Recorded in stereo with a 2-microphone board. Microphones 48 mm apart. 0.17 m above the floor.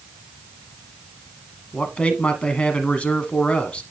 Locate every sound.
1.7 s a man speaking: 25° left (ahead or behind), 1.2 m